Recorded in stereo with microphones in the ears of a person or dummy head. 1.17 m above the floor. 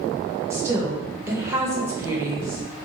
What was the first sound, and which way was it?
A woman speaking, 15° right (ahead or behind).